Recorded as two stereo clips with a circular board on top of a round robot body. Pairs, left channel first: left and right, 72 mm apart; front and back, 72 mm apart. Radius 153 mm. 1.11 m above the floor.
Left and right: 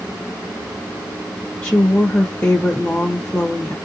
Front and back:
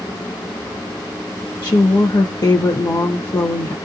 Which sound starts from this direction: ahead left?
A woman speaking, at 1.6 s.